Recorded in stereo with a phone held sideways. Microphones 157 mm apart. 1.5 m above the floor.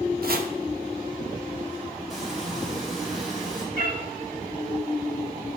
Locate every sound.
0.2 s chopping: 70° right (ahead or behind), 0.8 m
2.1 s frying: centre (ahead or behind), 3.5 m
3.8 s a cat meowing: 60° right (ahead or behind), 1.9 m